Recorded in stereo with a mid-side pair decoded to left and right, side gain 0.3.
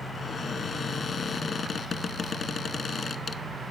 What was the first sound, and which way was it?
A cupboard door, 60° left.